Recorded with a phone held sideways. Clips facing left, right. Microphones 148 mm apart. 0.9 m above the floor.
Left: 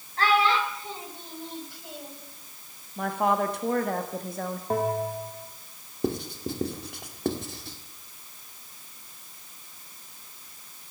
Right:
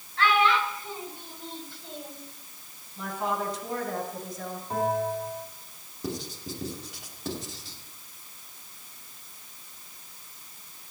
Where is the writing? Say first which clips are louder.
Left 6 dB; 60° left (ahead or behind), 1.7 m.